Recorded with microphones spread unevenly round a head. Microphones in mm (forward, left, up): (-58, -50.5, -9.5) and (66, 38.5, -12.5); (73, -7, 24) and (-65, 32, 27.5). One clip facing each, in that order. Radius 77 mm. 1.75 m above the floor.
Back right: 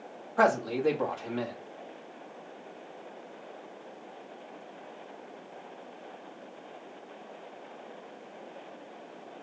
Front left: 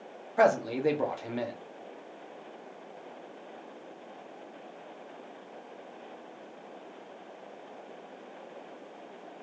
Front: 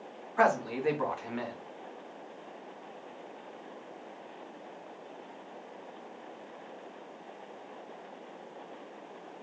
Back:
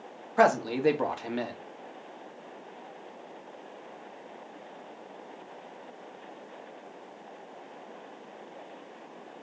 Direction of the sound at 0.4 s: 110° left.